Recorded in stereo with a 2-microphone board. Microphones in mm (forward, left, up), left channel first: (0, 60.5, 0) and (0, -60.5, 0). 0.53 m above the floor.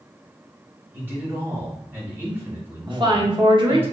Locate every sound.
0.9 s a man speaking: 20° right (ahead or behind), 1.2 m
2.9 s a woman speaking: 40° right (ahead or behind), 0.8 m